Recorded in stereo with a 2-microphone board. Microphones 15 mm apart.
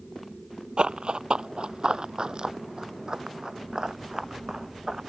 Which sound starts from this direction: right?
Running footsteps, at 0.8 s.